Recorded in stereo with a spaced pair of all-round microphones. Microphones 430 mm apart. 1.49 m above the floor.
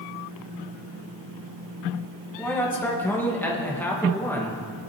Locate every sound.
2.4 s a man speaking: 5° left (ahead or behind), 1.7 m